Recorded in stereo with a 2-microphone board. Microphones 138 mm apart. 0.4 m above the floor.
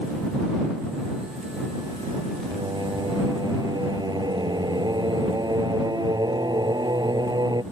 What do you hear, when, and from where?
2.5 s singing: 30° right (ahead or behind)